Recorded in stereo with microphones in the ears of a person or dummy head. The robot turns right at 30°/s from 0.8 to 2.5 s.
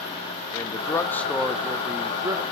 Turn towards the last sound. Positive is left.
turn(degrees=-150)